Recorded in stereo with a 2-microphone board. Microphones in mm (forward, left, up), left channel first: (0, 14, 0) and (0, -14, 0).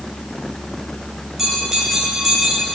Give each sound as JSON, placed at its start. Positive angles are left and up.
{"t": 1.4, "sound": "a bell", "side_deg": -15, "distance_m": 2.5}